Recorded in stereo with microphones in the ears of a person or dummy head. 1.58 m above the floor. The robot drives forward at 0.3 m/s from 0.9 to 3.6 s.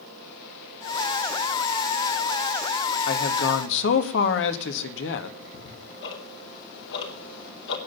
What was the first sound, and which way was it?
A man speaking, 70° left (ahead or behind).